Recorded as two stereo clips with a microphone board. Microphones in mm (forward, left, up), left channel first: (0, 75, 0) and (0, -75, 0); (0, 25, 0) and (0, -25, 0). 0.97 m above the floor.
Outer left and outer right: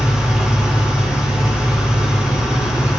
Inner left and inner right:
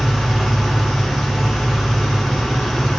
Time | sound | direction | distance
0.0 | an engine running | 10° right (ahead or behind) | 3.5 m